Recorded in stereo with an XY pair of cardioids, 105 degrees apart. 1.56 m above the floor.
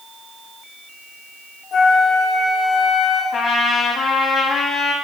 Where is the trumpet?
50° left, 0.9 m.